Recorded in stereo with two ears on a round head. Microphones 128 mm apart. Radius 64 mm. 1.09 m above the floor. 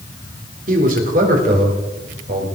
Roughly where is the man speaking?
Right.